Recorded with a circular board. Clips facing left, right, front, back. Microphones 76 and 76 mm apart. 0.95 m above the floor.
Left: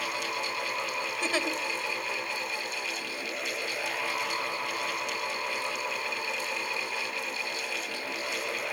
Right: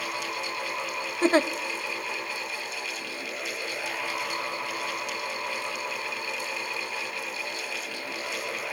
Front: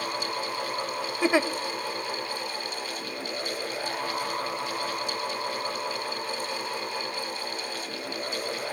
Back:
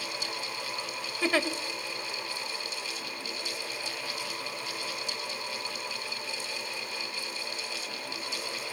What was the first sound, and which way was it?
A giggle, 65° right.